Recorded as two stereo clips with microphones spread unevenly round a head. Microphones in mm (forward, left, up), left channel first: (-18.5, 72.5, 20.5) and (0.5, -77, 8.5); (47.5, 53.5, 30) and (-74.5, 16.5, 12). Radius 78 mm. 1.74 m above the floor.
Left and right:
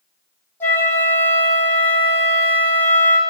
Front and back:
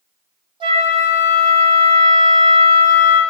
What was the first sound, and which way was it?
A flute, 160° left.